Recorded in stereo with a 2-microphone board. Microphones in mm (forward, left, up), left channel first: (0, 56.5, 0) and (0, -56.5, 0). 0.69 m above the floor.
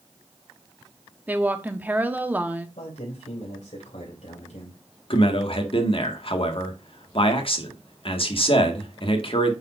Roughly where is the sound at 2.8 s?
Left.